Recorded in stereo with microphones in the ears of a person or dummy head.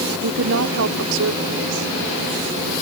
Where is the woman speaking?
60° right (ahead or behind); by 2.7 s 80° right.